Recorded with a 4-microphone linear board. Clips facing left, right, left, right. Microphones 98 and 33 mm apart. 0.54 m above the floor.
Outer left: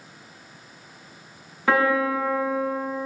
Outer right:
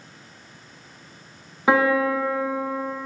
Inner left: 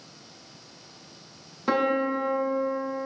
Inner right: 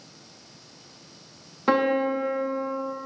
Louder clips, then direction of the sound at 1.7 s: Outer right 2 dB, inner right 2 dB; 15° right (ahead or behind).